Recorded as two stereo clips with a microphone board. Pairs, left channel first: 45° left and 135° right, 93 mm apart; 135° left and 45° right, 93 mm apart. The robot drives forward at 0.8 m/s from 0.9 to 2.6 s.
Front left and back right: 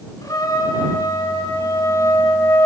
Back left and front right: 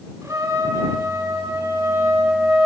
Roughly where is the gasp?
I don't hear a gasp.